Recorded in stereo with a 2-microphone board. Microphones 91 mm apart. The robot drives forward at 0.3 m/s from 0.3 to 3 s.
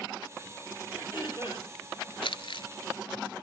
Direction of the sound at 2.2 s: 85° left.